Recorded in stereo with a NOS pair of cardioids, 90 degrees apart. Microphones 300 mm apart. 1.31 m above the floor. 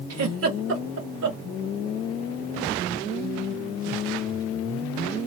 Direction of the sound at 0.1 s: 55° right.